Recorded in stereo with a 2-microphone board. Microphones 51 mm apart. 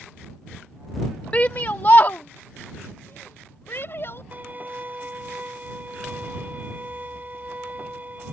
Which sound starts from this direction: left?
A shout, at 1.3 s.